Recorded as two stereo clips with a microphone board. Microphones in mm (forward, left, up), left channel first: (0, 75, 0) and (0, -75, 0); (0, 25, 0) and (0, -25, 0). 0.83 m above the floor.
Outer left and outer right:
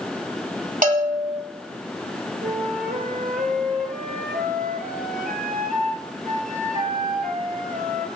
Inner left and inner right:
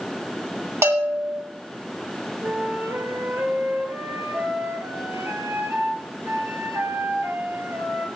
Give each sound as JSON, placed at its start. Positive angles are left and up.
{"t": 0.8, "sound": "a bell", "side_deg": -65, "distance_m": 2.0}
{"t": 2.4, "sound": "a flute", "side_deg": -75, "distance_m": 2.5}